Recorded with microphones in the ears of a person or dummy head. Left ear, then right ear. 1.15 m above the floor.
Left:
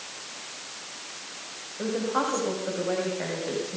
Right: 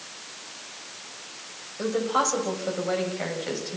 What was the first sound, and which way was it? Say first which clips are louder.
A woman speaking: right 3 dB; 70° right (ahead or behind).